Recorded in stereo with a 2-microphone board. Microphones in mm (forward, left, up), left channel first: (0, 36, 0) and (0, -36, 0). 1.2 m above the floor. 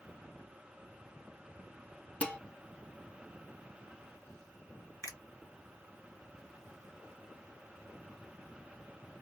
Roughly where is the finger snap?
Left.